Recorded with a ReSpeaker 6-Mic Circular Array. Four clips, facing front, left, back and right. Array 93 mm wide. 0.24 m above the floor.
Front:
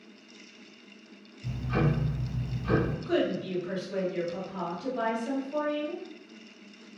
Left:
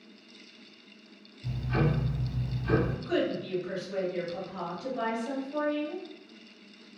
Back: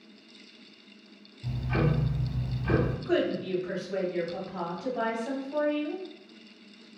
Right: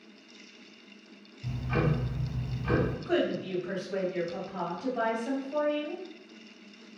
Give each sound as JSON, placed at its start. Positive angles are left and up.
{"t": 1.4, "sound": "ticking", "azimuth_deg": -140, "distance_m": 1.9}
{"t": 3.0, "sound": "a woman speaking", "azimuth_deg": -135, "distance_m": 1.7}